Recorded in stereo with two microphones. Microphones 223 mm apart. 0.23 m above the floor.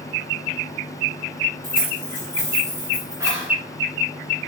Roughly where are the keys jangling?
Right.